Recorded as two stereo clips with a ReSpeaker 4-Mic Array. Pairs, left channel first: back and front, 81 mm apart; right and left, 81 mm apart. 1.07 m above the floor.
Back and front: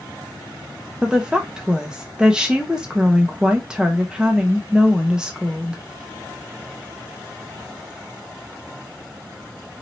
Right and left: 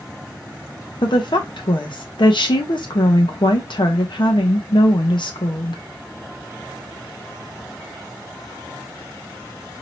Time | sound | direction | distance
1.0 | a woman speaking | 80° right | 0.9 m